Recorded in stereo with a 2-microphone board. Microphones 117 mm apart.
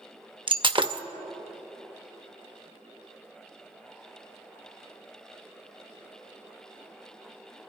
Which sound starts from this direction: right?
Breaking glass, at 0.5 s.